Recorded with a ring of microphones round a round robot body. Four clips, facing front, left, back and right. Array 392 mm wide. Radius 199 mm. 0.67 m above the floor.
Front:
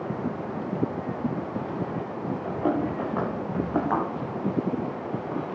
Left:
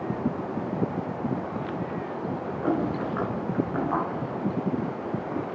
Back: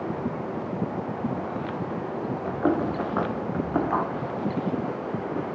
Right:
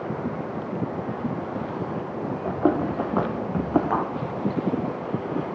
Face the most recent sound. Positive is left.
turn(degrees=-70)